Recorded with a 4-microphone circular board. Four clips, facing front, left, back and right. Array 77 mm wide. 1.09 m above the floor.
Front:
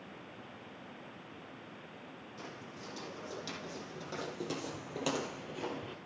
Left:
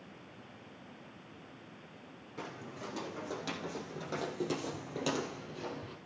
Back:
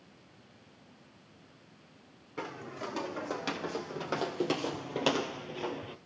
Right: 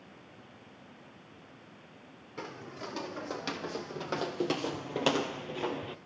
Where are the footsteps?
165° right, 3 m; by 6.0 s 95° right, 1.5 m.